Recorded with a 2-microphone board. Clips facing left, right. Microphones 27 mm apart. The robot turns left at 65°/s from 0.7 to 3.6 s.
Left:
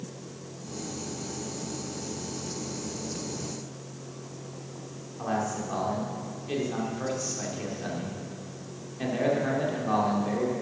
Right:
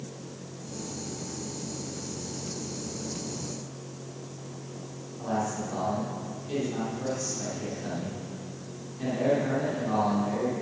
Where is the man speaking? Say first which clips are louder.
Even; 30° left (ahead or behind), 2.5 m.